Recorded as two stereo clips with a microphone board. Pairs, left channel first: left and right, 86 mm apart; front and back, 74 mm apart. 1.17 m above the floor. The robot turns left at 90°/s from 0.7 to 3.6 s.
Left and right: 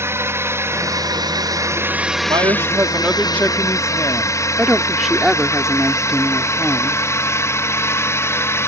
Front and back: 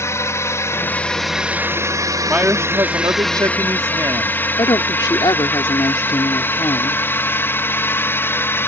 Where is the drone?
40° right; by 8.7 s 45° left.